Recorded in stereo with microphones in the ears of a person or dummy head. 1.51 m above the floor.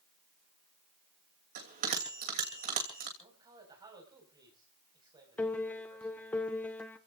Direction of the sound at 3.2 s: 25° right (ahead or behind).